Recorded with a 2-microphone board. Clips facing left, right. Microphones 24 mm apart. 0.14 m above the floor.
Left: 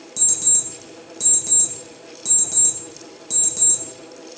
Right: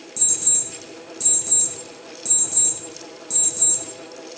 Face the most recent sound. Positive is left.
turn(degrees=30)  # may be behind; listen again after turning